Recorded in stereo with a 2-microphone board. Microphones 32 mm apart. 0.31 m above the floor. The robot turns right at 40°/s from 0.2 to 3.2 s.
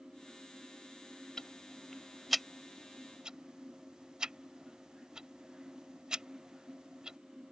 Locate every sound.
1.4 s ticking: 25° left (ahead or behind); by 7.2 s 25° right (ahead or behind)